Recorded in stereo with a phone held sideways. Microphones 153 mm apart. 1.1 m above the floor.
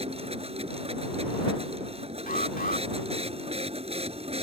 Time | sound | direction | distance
0.0 | a machine running | 45° right (ahead or behind) | ?
2.3 | an alarm | 75° left (ahead or behind) | ?